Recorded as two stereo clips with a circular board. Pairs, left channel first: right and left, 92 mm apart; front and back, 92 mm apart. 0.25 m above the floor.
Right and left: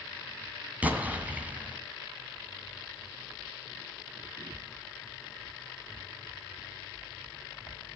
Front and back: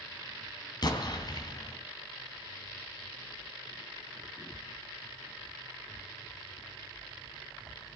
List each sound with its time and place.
0.8 s an explosion: 20° left, 2.5 m